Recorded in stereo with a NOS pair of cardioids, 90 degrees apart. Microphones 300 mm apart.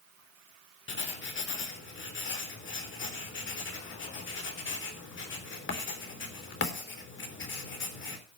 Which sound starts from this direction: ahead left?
Writing, at 0.9 s.